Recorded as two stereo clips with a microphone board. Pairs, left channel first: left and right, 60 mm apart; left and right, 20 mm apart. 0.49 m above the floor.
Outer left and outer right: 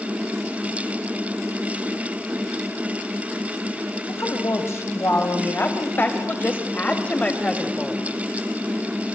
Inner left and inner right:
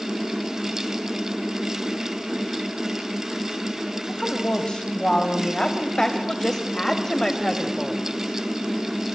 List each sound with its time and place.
4.0 s a woman speaking: 55° left (ahead or behind), 3.5 m; by 8.0 s 15° left (ahead or behind), 3 m